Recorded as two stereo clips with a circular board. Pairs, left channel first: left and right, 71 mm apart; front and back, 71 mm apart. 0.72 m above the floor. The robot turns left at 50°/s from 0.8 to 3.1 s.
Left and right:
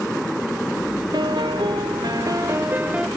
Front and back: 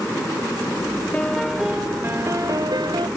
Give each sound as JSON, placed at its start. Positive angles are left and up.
{"t": 1.1, "sound": "a piano", "azimuth_deg": -75}